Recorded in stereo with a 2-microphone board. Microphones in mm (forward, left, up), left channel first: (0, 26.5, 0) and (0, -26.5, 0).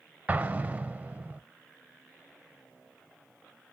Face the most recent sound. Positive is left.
turn(degrees=-30)  # may be behind; listen again after turning